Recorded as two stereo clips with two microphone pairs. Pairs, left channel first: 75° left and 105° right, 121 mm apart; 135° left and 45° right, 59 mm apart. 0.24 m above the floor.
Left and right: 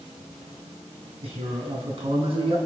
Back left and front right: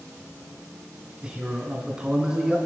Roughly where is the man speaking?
Behind right.